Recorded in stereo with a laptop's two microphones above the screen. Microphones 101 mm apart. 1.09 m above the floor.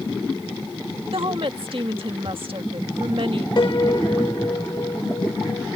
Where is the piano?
45° left (ahead or behind).